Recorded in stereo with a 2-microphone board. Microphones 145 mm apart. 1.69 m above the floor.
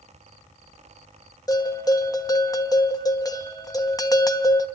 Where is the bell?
25° left (ahead or behind), 1.2 m.